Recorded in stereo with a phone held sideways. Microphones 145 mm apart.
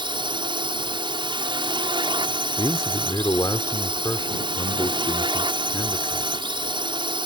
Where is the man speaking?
30° left (ahead or behind).